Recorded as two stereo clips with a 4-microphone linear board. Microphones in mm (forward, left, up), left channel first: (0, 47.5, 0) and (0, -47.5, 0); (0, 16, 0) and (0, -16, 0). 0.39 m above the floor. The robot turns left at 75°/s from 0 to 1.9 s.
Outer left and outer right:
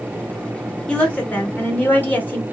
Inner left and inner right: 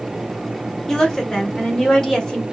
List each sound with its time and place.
0.9 s a woman speaking: 10° left (ahead or behind), 0.8 m; by 2.4 s 20° left (ahead or behind), 0.8 m